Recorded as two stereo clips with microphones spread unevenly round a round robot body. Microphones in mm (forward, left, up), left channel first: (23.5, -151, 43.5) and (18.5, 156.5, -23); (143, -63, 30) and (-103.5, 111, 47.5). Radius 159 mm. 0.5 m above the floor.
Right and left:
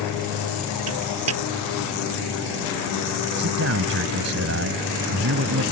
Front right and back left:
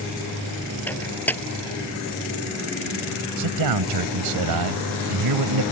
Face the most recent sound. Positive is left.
turn(degrees=140)